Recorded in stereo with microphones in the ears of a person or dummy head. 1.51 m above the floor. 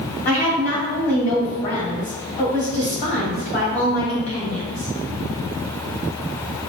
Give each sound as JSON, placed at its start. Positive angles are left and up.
{"t": 0.2, "sound": "a woman speaking", "side_deg": 45, "distance_m": 1.5}